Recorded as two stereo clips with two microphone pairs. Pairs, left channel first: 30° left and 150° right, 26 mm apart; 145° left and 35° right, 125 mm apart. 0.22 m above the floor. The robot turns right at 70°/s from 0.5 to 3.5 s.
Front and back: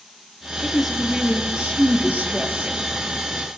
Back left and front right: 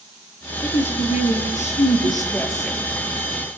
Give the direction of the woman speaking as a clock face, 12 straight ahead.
9 o'clock.